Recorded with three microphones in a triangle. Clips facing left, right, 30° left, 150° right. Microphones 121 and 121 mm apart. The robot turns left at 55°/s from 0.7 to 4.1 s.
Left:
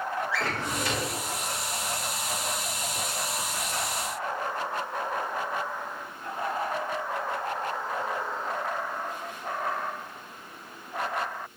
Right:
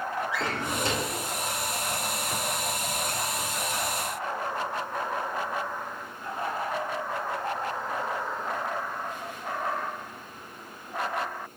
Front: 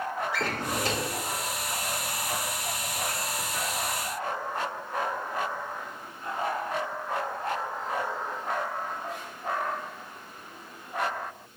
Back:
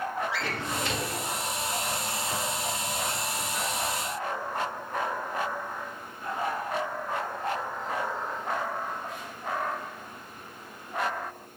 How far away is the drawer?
About 0.5 m.